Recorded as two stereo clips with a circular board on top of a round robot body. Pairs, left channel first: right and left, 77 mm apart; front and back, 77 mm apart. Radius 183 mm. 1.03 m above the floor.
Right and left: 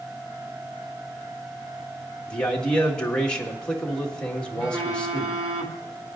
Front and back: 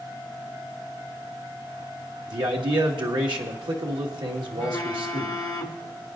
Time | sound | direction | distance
2.3 | a man speaking | 170° right | 2.0 m
4.6 | a phone buzzing | 50° left | 1.0 m